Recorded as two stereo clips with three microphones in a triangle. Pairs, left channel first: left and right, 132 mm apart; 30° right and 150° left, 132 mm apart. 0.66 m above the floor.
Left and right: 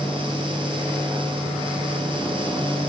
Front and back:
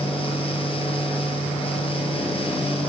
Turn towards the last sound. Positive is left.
No sound to turn to.